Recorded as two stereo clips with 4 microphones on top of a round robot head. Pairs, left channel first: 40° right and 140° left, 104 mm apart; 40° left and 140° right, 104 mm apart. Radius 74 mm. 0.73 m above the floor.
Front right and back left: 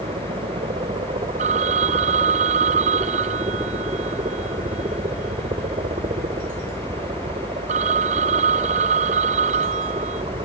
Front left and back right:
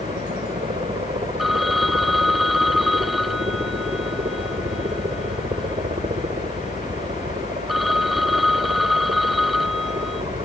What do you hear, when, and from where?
0.0 s a helicopter: 175° left
1.4 s a phone ringing: 130° left